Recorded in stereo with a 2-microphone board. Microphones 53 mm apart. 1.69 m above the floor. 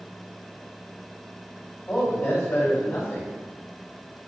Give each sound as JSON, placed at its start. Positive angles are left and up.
{"t": 1.9, "sound": "a man speaking", "side_deg": 50, "distance_m": 1.6}